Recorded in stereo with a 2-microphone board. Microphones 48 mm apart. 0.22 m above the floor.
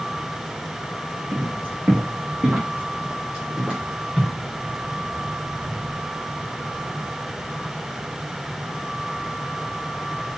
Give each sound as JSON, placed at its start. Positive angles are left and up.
{"t": 1.3, "sound": "footsteps", "side_deg": -45, "distance_m": 2.5}